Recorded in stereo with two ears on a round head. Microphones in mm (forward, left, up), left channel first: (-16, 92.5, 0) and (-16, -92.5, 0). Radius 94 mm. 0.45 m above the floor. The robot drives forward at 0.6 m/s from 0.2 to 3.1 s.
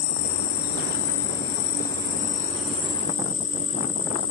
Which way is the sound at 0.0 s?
85° left.